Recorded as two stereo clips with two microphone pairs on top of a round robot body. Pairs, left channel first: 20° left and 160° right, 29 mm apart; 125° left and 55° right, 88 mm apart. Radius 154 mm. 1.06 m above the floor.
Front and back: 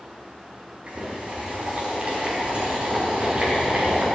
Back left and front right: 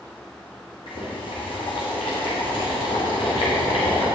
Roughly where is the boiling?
Behind left.